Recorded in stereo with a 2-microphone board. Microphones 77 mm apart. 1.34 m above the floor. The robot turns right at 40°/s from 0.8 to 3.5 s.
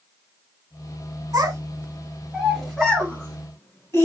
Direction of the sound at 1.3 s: 55° right (ahead or behind).